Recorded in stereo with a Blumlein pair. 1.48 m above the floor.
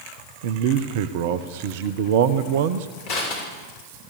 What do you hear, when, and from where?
0.4 s a man speaking: 50° right, 1.0 m
3.1 s crushing: 45° left, 6 m